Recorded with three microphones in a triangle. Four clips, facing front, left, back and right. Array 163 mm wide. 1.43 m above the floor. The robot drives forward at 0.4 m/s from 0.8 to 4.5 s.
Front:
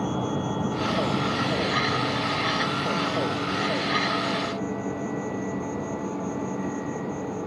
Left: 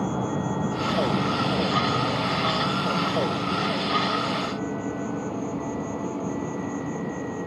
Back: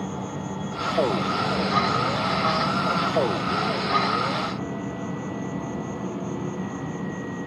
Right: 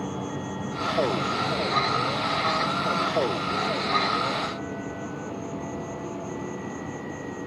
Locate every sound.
0.0 s an insect: 70° left, 0.7 m; by 7.5 s 160° left, 1.5 m